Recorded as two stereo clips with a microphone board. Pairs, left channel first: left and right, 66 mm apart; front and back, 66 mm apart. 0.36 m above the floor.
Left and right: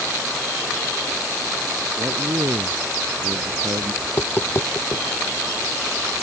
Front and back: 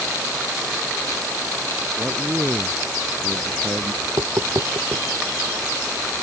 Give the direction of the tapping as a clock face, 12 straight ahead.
7 o'clock.